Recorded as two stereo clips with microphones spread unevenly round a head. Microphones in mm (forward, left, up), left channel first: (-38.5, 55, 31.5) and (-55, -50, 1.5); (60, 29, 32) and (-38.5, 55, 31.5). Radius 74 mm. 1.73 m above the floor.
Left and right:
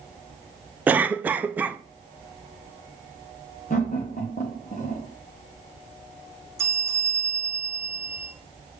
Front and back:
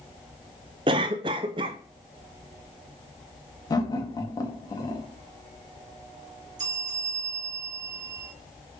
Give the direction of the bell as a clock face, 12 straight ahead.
6 o'clock.